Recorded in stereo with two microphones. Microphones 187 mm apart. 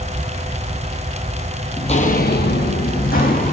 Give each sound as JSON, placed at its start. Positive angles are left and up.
{"t": 1.8, "sound": "footsteps", "side_deg": 30, "distance_m": 0.9}